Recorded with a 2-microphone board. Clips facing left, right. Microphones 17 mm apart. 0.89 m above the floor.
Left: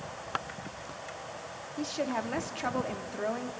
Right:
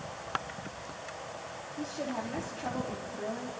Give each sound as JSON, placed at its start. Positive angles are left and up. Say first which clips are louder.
{"t": 1.8, "sound": "a woman speaking", "louder": "left 4 dB", "side_deg": 60, "distance_m": 1.7}